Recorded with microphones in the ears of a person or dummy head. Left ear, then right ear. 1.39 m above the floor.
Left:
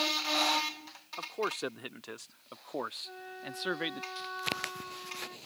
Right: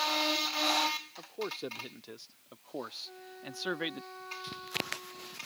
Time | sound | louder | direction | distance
1.2 | a man speaking | left 4 dB | 45° left (ahead or behind) | ?
3.0 | a flute | left 3 dB | 85° left | ?